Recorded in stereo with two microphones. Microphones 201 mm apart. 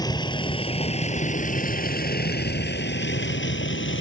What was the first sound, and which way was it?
A vehicle, 20° left (ahead or behind).